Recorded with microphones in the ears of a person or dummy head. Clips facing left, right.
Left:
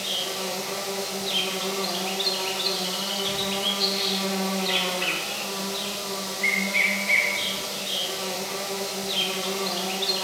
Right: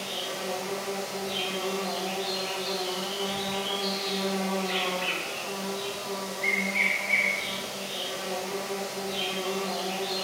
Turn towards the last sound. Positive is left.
turn(degrees=50)  # may be behind; listen again after turning